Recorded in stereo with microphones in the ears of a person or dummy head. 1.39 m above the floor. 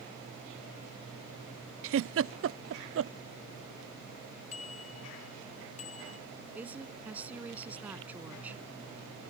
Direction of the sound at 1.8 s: 70° right (ahead or behind).